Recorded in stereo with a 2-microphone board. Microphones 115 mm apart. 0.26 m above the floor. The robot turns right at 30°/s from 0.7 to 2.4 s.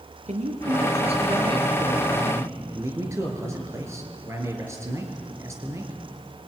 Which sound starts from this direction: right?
A man speaking, at 0.3 s.